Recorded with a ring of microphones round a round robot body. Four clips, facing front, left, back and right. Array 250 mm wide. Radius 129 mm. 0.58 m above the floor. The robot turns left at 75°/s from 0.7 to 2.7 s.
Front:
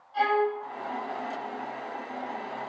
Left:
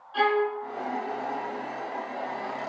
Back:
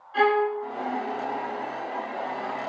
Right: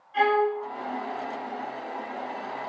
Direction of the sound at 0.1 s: 165° left.